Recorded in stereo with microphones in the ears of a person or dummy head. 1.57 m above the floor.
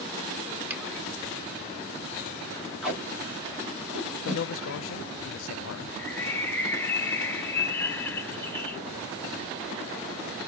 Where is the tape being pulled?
5° right (ahead or behind), 1.5 m.